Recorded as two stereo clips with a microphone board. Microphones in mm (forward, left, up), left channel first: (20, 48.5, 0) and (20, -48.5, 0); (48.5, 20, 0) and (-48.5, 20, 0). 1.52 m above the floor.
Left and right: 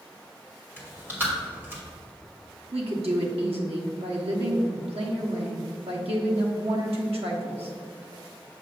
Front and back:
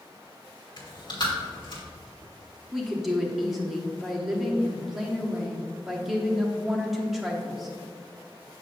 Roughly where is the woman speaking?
Right.